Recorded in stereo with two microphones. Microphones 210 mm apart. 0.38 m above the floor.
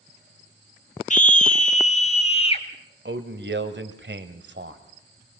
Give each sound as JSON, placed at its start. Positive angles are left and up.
{"t": 1.1, "sound": "a scream", "side_deg": 35, "distance_m": 1.2}
{"t": 3.0, "sound": "a man speaking", "side_deg": -60, "distance_m": 1.6}